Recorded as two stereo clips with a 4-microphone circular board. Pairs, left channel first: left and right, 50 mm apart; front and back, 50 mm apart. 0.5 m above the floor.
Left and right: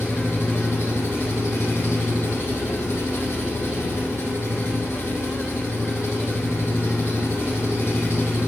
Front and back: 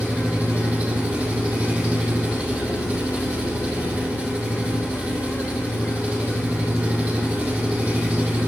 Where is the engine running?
120° left, 5 m.